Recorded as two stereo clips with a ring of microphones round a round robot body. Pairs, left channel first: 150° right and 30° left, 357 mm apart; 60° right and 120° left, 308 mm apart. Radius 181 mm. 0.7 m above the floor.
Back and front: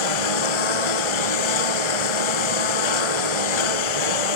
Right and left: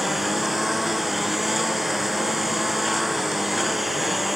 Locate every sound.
0.0 s a lawn mower: 150° right